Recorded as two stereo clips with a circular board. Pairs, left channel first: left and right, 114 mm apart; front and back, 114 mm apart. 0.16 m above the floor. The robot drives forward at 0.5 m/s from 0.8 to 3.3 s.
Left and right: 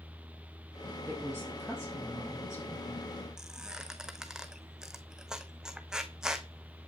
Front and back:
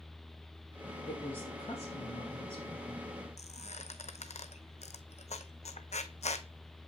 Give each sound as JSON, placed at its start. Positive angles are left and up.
{"t": 1.1, "sound": "a woman speaking", "azimuth_deg": 25, "distance_m": 3.5}
{"t": 3.4, "sound": "a squeak", "azimuth_deg": -5, "distance_m": 0.6}